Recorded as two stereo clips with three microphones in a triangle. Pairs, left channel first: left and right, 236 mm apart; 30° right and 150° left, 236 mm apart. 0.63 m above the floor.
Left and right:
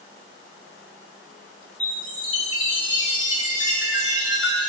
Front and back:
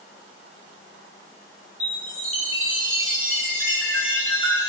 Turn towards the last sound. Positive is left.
turn(degrees=125)